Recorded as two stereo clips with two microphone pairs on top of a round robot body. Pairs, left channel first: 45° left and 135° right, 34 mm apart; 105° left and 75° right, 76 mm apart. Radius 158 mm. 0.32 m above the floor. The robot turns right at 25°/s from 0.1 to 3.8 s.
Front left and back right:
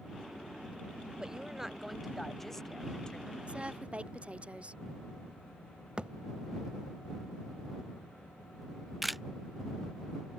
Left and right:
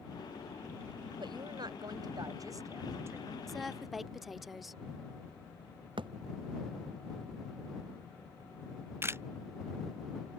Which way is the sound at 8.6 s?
50° right.